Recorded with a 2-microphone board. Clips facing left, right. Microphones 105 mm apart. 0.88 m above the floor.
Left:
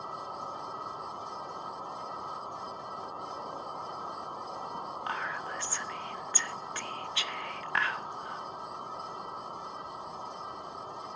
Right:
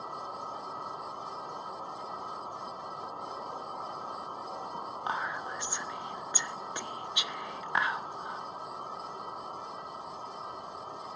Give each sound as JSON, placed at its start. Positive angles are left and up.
{"t": 5.1, "sound": "whispering", "side_deg": -20, "distance_m": 0.5}